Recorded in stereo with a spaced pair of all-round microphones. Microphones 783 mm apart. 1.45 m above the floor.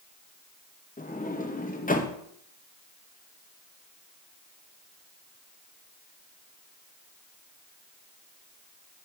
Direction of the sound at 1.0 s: 10° left (ahead or behind).